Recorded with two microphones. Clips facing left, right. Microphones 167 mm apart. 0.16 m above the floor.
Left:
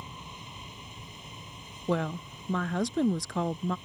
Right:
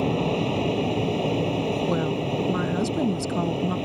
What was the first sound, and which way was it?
An aircraft, 70° right (ahead or behind).